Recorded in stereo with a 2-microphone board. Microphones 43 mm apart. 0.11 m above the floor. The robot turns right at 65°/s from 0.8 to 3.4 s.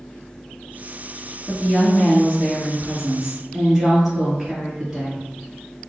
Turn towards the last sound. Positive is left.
turn(degrees=-150)